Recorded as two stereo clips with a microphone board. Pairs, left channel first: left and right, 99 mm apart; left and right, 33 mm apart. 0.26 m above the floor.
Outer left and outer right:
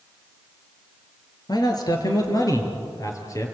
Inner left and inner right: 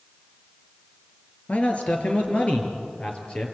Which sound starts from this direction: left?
A man speaking, at 1.5 s.